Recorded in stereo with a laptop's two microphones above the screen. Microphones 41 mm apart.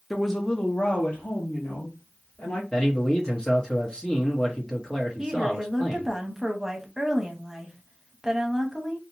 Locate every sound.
0.1 s a woman speaking: centre (ahead or behind), 0.8 m; by 2.6 s 40° left (ahead or behind), 2 m
2.7 s a man speaking: 20° left (ahead or behind), 1.1 m
5.2 s a woman speaking: 15° right (ahead or behind), 0.8 m